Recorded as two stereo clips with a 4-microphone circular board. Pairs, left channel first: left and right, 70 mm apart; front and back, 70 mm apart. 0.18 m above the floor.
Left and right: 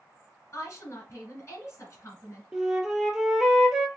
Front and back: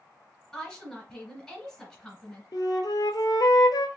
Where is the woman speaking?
85° left, 1.7 m.